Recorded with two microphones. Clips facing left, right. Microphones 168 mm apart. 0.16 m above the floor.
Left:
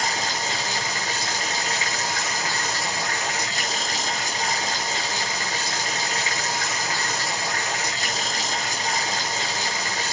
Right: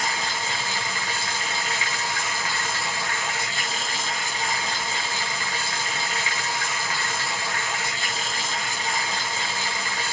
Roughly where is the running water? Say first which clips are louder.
Left 2 dB; left.